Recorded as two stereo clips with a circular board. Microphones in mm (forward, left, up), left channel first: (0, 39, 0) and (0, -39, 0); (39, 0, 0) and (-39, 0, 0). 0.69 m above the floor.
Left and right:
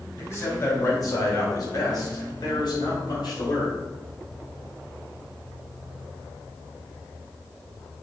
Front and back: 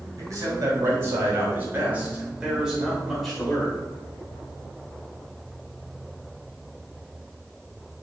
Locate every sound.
0.2 s a man speaking: 140° left, 3.5 m; by 3.8 s 80° left, 3.5 m